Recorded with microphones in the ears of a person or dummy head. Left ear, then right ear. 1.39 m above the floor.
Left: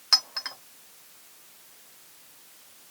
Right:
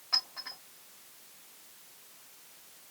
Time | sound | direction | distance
0.1 | a clink | 60° left (ahead or behind) | 1.4 m